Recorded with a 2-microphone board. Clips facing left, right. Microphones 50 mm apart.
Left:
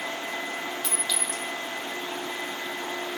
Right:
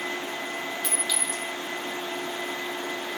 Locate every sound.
0.8 s a clink: 10° right (ahead or behind), 0.8 m